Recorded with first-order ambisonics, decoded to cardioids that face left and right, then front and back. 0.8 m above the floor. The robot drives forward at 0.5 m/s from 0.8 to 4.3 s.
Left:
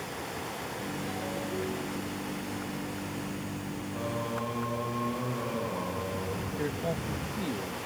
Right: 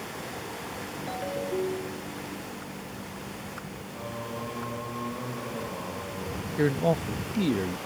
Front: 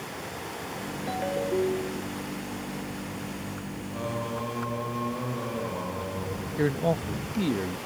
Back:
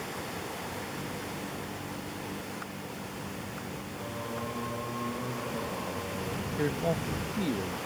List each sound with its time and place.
1.1 s a ringtone: 20° right
3.9 s singing: 15° left; by 7.1 s 35° left
6.6 s a man speaking: 60° right